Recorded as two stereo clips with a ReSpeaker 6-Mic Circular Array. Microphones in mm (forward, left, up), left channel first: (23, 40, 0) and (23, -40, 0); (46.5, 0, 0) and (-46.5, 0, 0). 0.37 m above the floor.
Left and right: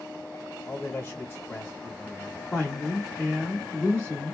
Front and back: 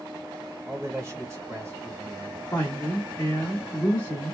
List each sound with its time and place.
0.7 s a man speaking: 135° left, 1.3 m
2.5 s a woman speaking: 30° left, 1.0 m